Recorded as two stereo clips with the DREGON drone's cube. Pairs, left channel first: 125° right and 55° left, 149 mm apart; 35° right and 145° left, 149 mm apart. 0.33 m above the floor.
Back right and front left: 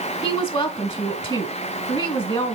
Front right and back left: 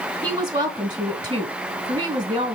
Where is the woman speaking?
165° right, 1.8 m.